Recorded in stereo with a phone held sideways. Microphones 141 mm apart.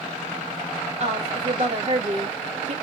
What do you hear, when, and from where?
1.0 s a woman speaking: 50° right (ahead or behind), 1.6 m